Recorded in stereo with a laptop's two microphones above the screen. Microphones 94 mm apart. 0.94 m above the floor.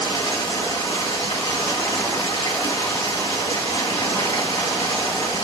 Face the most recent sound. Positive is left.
turn(degrees=80)